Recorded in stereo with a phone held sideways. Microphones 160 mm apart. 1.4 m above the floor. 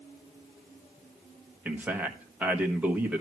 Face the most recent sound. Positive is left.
turn(degrees=-10)  # may be behind; listen again after turning